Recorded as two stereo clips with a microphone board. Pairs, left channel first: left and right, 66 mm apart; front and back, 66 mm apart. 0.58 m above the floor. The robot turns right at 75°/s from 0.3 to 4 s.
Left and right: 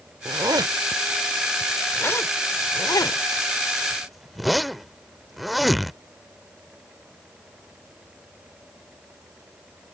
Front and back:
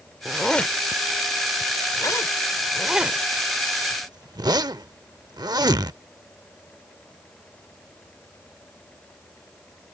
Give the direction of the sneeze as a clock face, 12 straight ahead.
I don't hear a sneeze.